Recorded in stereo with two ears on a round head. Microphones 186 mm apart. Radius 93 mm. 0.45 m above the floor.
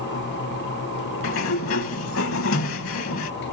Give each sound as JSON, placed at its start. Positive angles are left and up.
{"t": 1.2, "sound": "a sliding door", "side_deg": 70, "distance_m": 0.7}